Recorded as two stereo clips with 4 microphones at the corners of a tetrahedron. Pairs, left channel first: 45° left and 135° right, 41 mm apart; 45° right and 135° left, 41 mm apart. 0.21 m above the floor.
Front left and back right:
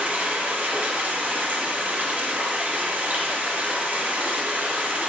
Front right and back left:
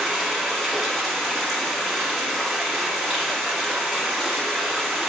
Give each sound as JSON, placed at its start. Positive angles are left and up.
{"t": 0.0, "sound": "running water", "azimuth_deg": -140, "distance_m": 1.3}